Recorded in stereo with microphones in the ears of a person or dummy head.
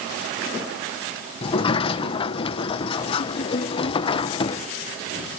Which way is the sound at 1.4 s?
35° left (ahead or behind).